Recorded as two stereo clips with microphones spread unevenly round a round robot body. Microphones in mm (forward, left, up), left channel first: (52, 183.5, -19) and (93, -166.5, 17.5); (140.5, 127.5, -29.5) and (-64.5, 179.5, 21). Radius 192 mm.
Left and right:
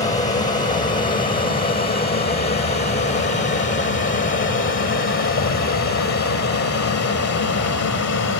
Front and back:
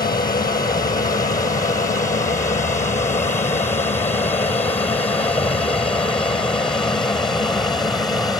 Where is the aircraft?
30° left; by 8.4 s 65° left.